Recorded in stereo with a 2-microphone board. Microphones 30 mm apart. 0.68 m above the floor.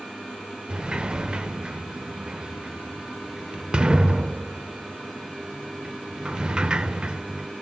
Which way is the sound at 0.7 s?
30° right (ahead or behind).